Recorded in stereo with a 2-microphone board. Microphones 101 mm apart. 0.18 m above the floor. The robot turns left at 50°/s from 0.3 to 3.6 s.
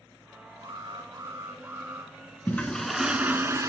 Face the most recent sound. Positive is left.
turn(degrees=-35)